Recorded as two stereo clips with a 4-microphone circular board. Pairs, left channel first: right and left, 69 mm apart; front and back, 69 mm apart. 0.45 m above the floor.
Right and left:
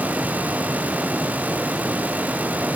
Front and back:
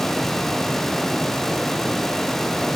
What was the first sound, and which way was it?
Only background noise.